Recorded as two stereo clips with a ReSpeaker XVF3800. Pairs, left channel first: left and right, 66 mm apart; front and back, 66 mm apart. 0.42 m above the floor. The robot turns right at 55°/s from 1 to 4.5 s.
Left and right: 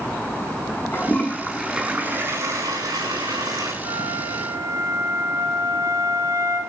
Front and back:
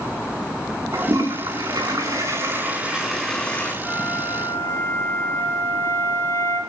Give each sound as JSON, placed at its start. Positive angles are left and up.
{"t": 0.9, "sound": "a toilet flushing", "azimuth_deg": 150, "distance_m": 5.5}
{"t": 3.8, "sound": "a flute", "azimuth_deg": -85, "distance_m": 4.0}